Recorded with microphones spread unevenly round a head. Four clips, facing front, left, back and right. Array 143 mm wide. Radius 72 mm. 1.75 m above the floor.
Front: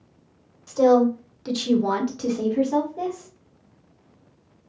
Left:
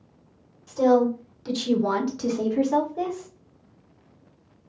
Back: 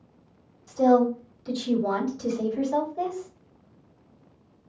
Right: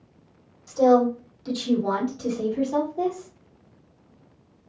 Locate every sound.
0.7 s a woman speaking: 5° right, 1.8 m; by 3.3 s 70° left, 1.7 m